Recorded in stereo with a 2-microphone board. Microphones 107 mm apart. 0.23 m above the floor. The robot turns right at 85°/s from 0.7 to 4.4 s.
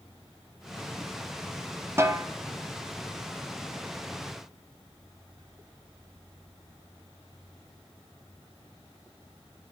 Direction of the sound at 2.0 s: 25° right (ahead or behind).